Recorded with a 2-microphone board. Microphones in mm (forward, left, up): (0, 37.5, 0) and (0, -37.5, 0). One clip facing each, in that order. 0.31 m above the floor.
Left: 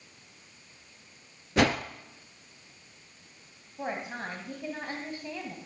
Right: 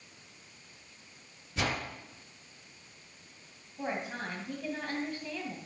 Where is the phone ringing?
No phone ringing in this recording.